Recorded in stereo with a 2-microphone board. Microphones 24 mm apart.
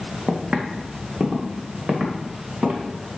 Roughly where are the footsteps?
Right.